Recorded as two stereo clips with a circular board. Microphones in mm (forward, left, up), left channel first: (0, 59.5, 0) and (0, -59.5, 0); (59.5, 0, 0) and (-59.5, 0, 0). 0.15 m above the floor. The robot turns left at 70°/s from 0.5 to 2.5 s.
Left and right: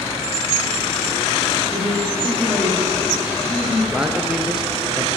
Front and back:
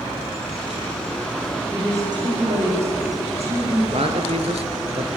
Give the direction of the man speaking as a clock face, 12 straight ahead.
6 o'clock.